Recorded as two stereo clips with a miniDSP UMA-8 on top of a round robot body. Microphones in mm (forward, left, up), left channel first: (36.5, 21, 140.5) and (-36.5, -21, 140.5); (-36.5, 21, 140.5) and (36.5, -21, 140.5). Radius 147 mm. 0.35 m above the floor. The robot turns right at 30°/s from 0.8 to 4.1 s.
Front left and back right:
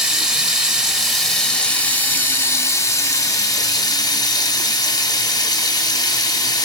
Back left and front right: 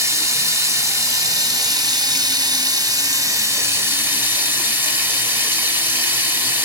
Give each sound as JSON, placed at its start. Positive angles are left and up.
{"t": 0.0, "sound": "running water", "azimuth_deg": -70, "distance_m": 1.6}